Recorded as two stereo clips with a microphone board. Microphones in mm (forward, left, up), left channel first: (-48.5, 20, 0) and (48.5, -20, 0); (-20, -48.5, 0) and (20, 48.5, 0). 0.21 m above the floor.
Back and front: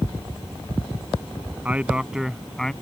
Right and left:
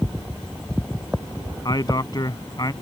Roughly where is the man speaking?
Right.